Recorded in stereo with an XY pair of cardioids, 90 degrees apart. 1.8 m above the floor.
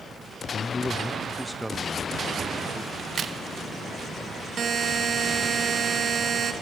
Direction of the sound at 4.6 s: 55° right.